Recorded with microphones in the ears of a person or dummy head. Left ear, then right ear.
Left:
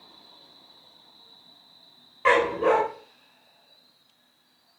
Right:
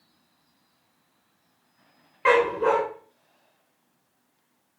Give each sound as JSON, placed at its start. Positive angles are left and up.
{"t": 2.2, "sound": "a dog barking", "side_deg": -5, "distance_m": 2.5}